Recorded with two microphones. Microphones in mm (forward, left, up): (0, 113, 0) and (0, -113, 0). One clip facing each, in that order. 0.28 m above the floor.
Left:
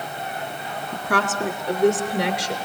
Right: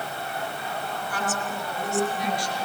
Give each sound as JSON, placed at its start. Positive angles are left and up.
{"t": 0.9, "sound": "a woman speaking", "side_deg": 70, "distance_m": 3.0}